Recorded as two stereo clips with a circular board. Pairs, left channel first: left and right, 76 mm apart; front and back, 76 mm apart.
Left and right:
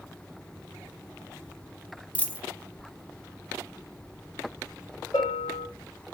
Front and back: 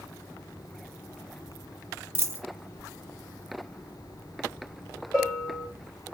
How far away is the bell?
About 2.5 m.